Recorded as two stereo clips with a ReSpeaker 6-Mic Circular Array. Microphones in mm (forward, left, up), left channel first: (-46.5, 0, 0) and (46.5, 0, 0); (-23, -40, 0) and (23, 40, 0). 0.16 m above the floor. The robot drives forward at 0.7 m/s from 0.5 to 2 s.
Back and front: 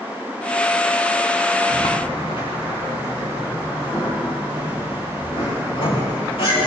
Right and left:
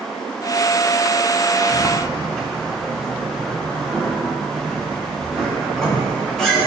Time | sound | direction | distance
1.7 | a sliding door | 155° left | 5 m